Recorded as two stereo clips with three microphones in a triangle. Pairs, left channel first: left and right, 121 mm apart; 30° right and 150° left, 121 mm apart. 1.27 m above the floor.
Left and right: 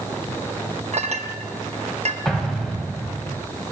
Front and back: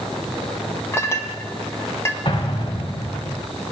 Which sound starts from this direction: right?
A clink, at 0.9 s.